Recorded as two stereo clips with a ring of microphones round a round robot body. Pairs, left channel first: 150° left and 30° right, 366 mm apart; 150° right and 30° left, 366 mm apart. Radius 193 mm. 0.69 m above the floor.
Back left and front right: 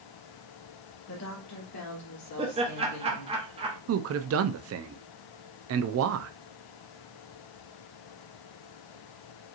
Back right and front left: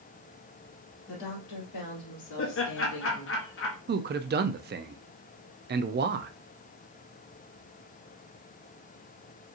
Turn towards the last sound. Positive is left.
turn(degrees=-15)